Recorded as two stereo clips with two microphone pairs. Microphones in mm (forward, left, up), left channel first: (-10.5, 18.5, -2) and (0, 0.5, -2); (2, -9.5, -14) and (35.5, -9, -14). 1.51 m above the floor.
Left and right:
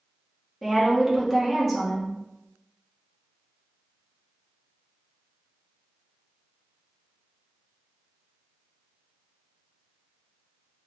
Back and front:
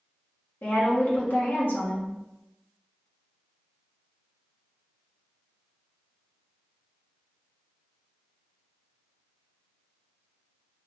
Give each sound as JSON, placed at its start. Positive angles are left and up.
{"t": 0.6, "sound": "a woman speaking", "azimuth_deg": -150, "distance_m": 1.4}